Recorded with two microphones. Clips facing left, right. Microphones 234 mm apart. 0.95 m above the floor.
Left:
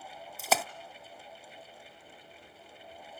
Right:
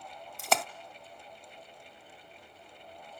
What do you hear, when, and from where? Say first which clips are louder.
0.4 s a splash: even; 5° left (ahead or behind), 0.6 m